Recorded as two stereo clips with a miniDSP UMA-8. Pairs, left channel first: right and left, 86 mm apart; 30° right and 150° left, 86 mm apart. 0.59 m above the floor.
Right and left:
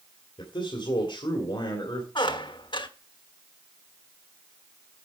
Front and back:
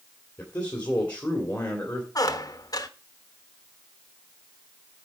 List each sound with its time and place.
0.4 s a man speaking: 100° right, 2.5 m
2.1 s a squeak: 70° right, 0.8 m